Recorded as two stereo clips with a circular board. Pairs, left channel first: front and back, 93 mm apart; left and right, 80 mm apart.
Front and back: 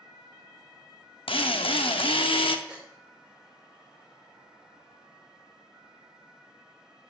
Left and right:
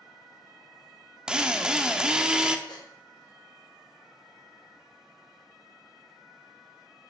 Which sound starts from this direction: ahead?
A drill, at 1.3 s.